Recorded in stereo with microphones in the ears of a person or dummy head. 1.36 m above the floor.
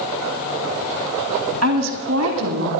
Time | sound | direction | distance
1.6 | a woman speaking | 80° right | 2.5 m